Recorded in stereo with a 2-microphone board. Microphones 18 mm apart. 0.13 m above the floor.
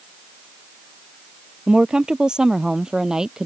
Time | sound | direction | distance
1.7 | a woman speaking | 55° right (ahead or behind) | ?